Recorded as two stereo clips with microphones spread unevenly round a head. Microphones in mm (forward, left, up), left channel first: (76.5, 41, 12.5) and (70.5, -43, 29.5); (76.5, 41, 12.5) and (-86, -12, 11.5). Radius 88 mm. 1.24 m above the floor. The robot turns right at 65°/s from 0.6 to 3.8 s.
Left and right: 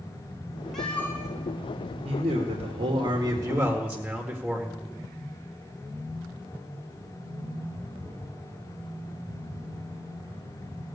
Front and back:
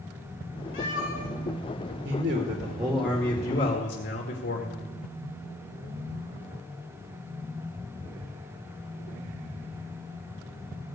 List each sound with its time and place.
0.7 s a cat meowing: 5° right, 4.5 m; by 1.3 s 30° left, 4.5 m
2.0 s a man speaking: 130° right, 2 m; by 4.9 s 15° right, 2 m